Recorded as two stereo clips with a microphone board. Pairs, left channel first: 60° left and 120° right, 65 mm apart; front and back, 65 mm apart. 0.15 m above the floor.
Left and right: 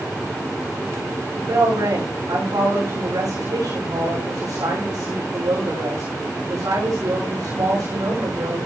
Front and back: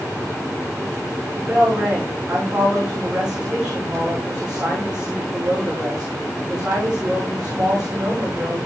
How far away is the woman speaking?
About 10 m.